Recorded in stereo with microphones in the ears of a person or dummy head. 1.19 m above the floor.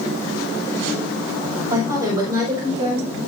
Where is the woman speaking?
15° right (ahead or behind), 6 m; by 3.2 s 25° right (ahead or behind), 5.5 m.